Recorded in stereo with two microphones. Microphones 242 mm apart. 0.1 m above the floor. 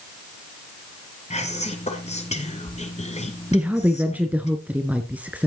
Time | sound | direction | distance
1.3 | whispering | 30° left (ahead or behind) | 1.2 m
3.5 | a woman speaking | 5° right (ahead or behind) | 1.2 m